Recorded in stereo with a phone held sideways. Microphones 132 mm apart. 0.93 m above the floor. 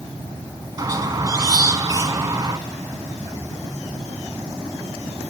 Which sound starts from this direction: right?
A squeak, at 0.8 s.